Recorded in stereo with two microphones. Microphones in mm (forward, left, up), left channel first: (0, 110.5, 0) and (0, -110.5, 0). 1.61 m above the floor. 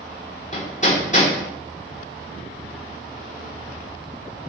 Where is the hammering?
35° left (ahead or behind), 4 m.